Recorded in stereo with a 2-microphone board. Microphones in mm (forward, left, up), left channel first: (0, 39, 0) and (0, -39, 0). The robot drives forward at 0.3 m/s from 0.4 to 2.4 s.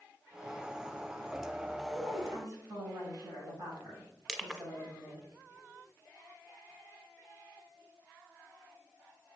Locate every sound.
1.9 s a woman speaking: 50° right (ahead or behind), 5 m
4.3 s crushing: 10° right (ahead or behind), 0.8 m